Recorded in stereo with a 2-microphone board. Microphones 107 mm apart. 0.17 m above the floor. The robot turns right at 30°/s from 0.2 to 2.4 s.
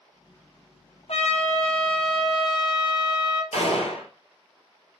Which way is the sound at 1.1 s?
90° left.